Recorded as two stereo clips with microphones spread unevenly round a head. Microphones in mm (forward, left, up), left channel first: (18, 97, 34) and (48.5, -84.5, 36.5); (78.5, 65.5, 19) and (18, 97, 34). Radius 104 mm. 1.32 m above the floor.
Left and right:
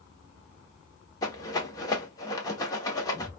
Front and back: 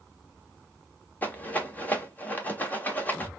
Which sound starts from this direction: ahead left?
A rattle, at 1.2 s.